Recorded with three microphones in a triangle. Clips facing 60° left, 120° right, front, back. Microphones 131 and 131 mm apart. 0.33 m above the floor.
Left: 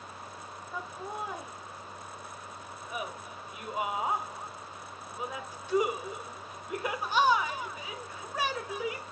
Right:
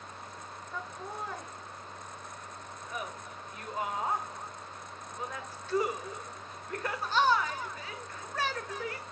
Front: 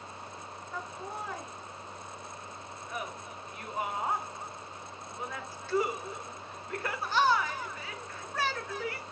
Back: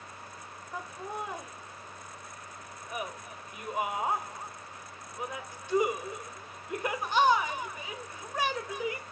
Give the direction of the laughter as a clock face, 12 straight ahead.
8 o'clock.